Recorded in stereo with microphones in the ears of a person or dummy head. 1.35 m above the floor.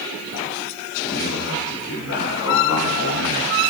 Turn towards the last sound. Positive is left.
turn(degrees=80)